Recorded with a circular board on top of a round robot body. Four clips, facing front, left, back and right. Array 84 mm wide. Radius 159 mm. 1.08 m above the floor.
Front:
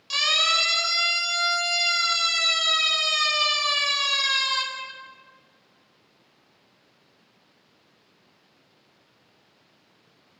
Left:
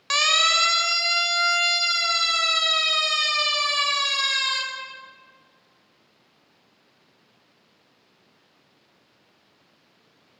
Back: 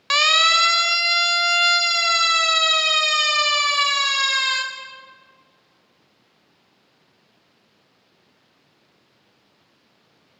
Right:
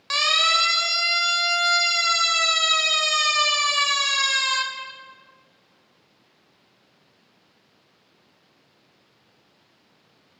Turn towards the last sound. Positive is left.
turn(degrees=-170)